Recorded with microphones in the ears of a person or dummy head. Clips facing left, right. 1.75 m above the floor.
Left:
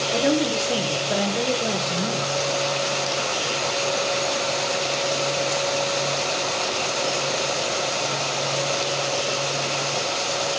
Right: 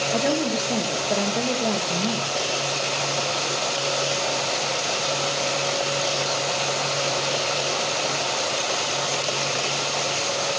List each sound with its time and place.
0.1 s a woman speaking: 10° left (ahead or behind), 7.5 m